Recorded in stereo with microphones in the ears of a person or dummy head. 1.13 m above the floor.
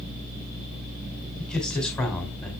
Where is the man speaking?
5° left (ahead or behind), 3 m.